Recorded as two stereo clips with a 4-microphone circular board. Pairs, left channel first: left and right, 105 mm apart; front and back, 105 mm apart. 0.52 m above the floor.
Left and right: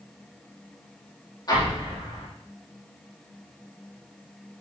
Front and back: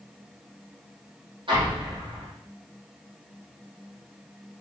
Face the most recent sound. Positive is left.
turn(degrees=140)